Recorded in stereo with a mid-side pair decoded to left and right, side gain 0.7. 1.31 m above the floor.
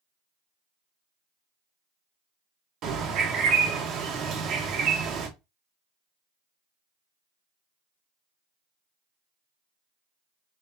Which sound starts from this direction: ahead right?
A bird, at 2.8 s.